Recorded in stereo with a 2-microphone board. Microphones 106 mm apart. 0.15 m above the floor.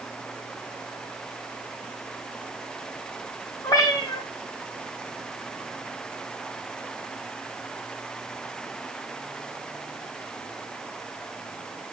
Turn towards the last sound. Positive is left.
turn(degrees=35)  # may be behind; listen again after turning